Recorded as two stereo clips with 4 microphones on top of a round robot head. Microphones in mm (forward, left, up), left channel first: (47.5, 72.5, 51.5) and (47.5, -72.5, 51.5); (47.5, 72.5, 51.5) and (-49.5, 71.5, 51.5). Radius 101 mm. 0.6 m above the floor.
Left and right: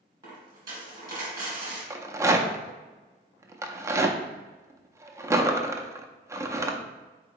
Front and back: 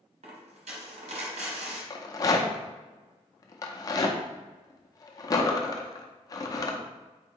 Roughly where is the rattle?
Ahead right.